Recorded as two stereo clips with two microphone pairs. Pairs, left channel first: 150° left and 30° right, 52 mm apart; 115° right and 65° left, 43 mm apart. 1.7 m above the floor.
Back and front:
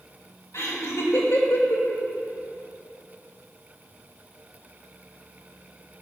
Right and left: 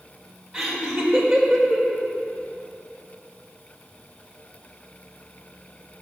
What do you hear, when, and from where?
0.5 s laughter: 145° left, 2 m